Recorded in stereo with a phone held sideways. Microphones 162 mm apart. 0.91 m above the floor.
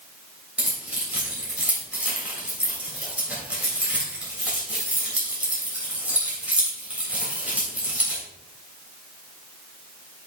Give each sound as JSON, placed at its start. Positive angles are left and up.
{"t": 0.6, "sound": "keys jangling", "side_deg": -10, "distance_m": 3.0}